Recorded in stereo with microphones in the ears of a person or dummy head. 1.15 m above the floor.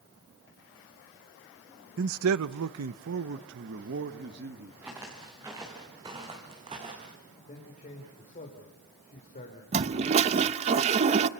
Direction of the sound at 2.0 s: 60° right (ahead or behind).